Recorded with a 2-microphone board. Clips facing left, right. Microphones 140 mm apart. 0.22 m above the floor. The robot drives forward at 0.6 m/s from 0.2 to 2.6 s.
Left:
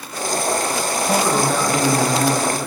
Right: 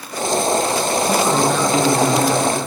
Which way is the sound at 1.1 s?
Centre (ahead or behind).